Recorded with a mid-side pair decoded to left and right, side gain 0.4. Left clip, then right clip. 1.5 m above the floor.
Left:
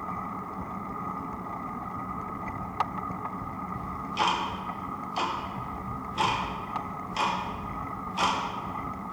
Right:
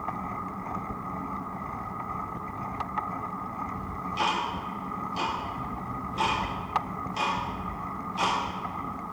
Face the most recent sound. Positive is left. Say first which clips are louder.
# left 2 dB
turn(degrees=35)